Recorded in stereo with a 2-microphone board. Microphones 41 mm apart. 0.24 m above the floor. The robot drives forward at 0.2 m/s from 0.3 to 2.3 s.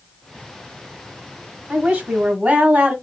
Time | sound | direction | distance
1.7 | a woman speaking | 25° right (ahead or behind) | 1.0 m